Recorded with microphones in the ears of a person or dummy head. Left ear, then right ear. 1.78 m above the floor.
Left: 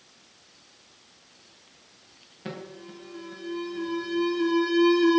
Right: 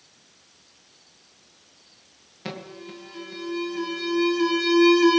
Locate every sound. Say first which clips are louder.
2.5 s an alarm: right 3 dB; 25° right (ahead or behind), 2 m